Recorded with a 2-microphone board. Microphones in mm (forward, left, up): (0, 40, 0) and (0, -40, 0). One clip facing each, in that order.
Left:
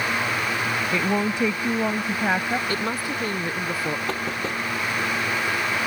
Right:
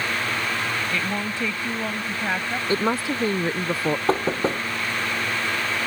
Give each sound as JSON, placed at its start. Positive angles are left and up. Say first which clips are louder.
{"t": 0.9, "sound": "a woman speaking", "louder": "left 4 dB", "side_deg": 20}
{"t": 2.7, "sound": "a woman speaking", "louder": "right 4 dB", "side_deg": -25}
{"t": 4.1, "sound": "knocking", "louder": "right 5 dB", "side_deg": -35}